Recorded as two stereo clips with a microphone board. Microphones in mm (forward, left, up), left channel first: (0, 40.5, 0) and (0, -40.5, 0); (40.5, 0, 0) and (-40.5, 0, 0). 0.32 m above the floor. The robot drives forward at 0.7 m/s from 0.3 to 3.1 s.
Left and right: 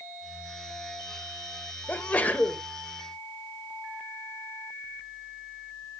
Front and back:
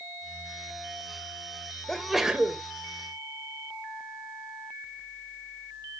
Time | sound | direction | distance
1.9 | a sneeze | 65° left | 1.2 m